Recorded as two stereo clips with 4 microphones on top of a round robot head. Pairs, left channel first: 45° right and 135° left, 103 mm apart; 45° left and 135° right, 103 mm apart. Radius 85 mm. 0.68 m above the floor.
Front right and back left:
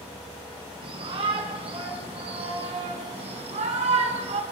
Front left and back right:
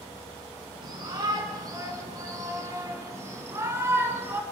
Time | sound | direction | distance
0.8 | a shout | 175° left | 6 m